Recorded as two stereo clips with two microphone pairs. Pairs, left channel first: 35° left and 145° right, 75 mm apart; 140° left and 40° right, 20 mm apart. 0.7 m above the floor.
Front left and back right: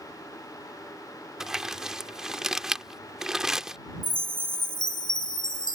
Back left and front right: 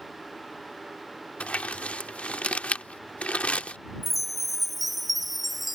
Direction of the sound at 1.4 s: 130° left.